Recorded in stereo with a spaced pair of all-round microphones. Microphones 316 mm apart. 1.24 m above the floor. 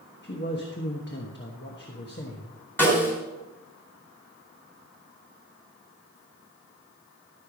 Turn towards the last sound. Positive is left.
turn(degrees=5)  # may be behind; listen again after turning